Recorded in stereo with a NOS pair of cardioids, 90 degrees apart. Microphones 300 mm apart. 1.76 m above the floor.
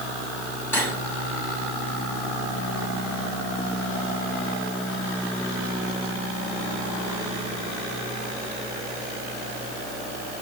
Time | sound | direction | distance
0.7 | cutlery clinking | 10° left | 6 m